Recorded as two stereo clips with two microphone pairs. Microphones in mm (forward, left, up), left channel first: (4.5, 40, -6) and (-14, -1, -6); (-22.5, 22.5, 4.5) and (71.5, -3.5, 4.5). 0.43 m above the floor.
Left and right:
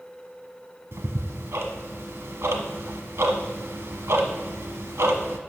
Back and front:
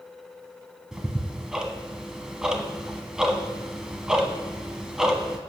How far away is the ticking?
About 0.9 m.